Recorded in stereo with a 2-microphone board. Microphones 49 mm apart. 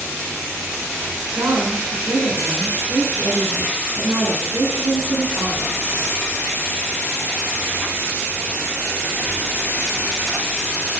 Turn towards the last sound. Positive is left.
turn(degrees=-50)  # may be behind; listen again after turning